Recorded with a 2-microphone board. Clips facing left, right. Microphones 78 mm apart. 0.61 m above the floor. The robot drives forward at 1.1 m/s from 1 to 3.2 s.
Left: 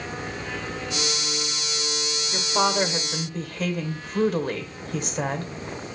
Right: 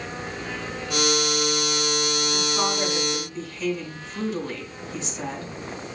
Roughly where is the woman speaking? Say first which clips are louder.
Left 7 dB; left.